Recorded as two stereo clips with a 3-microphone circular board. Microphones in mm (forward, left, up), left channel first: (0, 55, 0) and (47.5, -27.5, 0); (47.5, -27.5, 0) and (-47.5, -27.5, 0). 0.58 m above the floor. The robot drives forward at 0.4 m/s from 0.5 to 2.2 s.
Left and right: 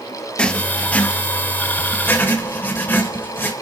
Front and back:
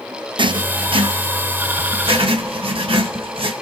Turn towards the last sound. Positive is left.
turn(degrees=-175)